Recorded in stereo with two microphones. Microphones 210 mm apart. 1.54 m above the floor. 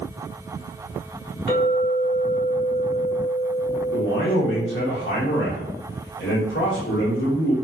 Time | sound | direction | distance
1.5 | a clink | 55° left (ahead or behind) | 1.8 m
3.9 | a man speaking | 70° left (ahead or behind) | 1.1 m